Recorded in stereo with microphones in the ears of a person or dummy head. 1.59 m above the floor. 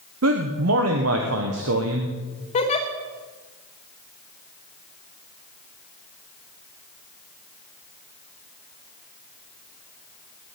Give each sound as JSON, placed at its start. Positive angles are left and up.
{"t": 0.2, "sound": "a man speaking", "side_deg": -70, "distance_m": 1.2}
{"t": 2.5, "sound": "a giggle", "side_deg": 25, "distance_m": 1.2}